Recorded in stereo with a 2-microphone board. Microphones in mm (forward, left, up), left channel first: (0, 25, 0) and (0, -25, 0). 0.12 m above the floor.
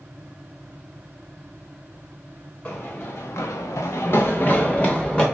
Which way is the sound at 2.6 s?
40° left (ahead or behind).